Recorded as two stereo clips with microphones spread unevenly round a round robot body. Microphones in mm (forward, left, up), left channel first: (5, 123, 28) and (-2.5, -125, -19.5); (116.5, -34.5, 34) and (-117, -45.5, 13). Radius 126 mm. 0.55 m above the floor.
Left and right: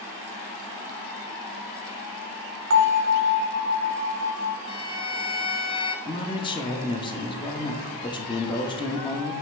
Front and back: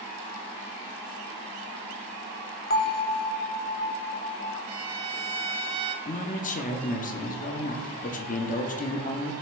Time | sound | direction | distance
2.7 | a bell | 50° right | 0.7 m
4.7 | a violin | 160° left | 0.7 m
6.0 | a man speaking | 15° left | 0.8 m